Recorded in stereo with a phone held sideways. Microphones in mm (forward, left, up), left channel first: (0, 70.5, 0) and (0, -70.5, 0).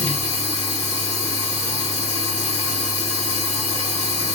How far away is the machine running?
About 2.5 m.